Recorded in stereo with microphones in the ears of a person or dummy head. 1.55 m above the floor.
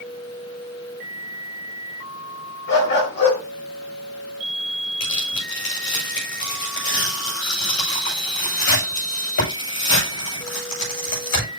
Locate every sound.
2.7 s a dog barking: 60° left (ahead or behind), 5 m
5.0 s tearing paper: 70° left (ahead or behind), 9 m